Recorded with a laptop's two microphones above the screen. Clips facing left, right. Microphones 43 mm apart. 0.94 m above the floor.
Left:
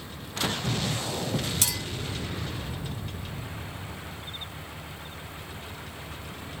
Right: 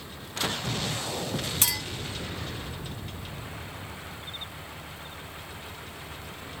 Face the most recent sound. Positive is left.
turn(degrees=-25)  # may be behind; listen again after turning